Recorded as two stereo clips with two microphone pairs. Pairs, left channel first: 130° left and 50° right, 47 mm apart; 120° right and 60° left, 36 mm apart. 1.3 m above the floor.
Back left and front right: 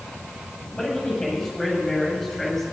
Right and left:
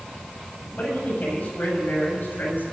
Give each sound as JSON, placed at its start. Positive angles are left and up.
{"t": 0.8, "sound": "a man speaking", "azimuth_deg": -165, "distance_m": 8.5}